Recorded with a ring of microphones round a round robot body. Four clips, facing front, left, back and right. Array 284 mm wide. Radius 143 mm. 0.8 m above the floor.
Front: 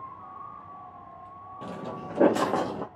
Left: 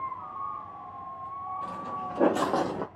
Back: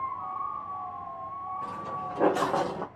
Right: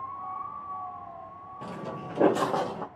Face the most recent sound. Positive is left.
turn(degrees=80)